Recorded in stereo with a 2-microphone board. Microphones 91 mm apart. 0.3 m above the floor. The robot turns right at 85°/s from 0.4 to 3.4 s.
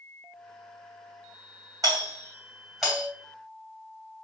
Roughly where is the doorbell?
Right.